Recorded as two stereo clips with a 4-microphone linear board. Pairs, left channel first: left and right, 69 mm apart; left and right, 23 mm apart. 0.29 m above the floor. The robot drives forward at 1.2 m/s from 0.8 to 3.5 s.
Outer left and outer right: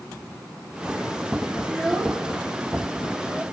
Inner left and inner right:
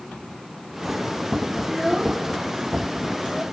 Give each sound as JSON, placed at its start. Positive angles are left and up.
{"t": 1.7, "sound": "a child speaking", "side_deg": 10, "distance_m": 3.5}